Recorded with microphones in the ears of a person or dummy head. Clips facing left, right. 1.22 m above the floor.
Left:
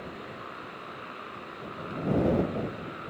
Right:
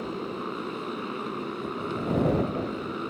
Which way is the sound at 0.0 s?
70° right (ahead or behind).